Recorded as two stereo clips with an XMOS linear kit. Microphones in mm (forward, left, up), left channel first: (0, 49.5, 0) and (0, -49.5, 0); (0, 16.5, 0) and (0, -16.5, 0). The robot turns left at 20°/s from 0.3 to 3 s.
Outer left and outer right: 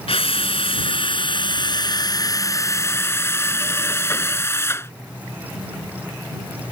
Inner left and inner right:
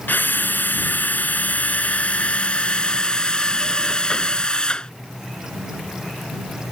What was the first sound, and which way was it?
A drill, 80° left.